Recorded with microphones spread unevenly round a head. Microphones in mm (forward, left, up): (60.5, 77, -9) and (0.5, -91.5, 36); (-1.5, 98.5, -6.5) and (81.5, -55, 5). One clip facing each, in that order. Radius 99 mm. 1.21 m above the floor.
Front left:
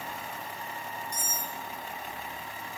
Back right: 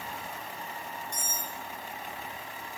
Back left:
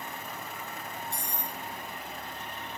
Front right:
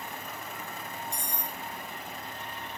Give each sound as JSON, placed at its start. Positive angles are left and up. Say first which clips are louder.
{"t": 1.1, "sound": "cutlery clinking", "louder": "front left 1 dB, even", "azimuth_deg": 15, "distance_m": 4.0}